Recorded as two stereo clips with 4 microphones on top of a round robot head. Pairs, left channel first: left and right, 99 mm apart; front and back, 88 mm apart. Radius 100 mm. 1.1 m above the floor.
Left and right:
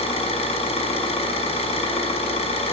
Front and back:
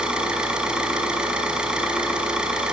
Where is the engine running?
100° left, 6 m.